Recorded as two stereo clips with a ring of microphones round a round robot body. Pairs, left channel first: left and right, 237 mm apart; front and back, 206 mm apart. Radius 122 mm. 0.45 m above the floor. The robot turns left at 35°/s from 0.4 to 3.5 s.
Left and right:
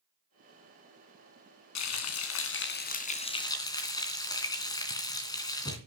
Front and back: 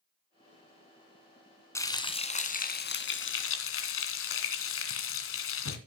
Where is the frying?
75° left, 2.5 m; by 5.8 s 15° left, 2.5 m.